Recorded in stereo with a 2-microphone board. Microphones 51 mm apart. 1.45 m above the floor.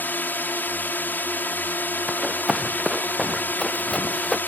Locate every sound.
0.0 s a drone: 40° left (ahead or behind)
2.1 s running footsteps: centre (ahead or behind); by 4.4 s 10° left (ahead or behind)